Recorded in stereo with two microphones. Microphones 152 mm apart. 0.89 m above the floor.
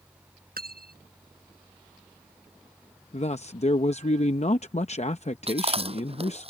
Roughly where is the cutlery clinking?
Right.